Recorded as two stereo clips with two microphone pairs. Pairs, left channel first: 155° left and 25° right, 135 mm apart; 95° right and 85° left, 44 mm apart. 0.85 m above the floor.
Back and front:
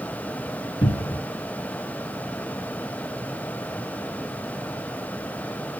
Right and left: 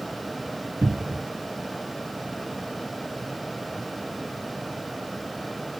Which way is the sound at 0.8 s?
115° left.